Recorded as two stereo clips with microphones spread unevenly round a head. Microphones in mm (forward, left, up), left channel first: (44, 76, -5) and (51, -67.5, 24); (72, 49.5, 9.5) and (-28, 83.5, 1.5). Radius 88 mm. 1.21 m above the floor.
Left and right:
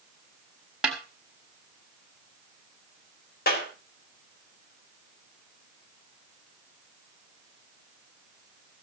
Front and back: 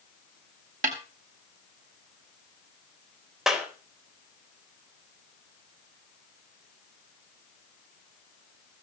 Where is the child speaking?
No child speaking in this recording.